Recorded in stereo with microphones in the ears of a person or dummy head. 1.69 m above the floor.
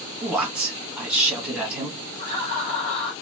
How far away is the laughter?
About 1.6 m.